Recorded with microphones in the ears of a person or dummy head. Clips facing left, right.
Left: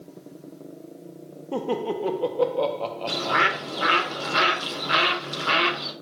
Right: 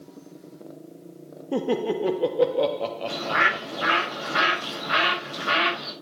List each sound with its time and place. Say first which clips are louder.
1.5 s laughter: right 2 dB; 15° right (ahead or behind), 0.5 m
3.1 s a bird: left 1 dB; 55° left (ahead or behind), 3.5 m